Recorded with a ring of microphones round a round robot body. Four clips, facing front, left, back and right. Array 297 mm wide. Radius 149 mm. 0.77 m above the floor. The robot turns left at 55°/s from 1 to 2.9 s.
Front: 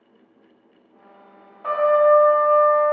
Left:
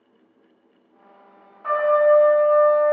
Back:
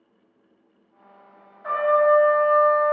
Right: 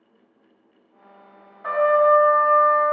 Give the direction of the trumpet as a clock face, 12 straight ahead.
1 o'clock.